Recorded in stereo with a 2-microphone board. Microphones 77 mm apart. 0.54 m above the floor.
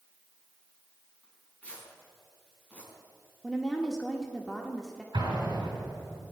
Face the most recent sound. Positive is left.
turn(degrees=-65)  # may be behind; listen again after turning